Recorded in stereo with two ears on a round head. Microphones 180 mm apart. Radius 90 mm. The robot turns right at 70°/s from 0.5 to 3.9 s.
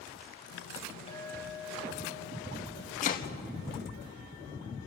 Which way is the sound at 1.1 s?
155° left.